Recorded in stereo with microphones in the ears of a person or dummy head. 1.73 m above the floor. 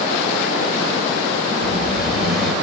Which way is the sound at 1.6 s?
55° left (ahead or behind).